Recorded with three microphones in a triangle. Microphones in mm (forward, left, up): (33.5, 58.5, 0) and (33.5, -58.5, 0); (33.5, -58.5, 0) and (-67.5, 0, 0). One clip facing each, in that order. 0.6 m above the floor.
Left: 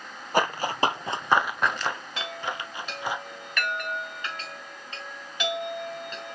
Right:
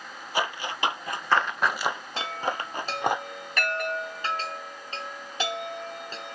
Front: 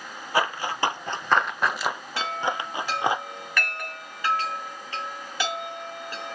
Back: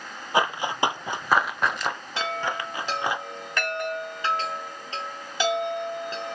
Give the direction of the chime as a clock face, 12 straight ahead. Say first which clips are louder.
Right 3 dB, even; 5 o'clock.